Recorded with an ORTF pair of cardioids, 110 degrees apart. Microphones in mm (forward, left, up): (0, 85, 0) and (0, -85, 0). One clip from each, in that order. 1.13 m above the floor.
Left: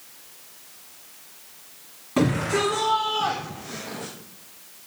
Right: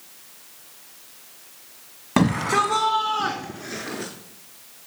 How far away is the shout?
About 1.4 m.